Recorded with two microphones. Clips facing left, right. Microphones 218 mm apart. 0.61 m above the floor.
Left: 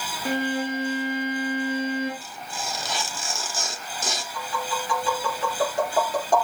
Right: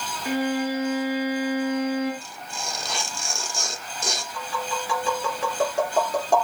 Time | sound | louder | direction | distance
0.2 | a violin | right 2 dB | 65° left (ahead or behind) | 9 m
2.2 | tearing paper | left 1 dB | 5° left (ahead or behind) | 1.4 m
4.3 | tapping | even | 10° right (ahead or behind) | 3.5 m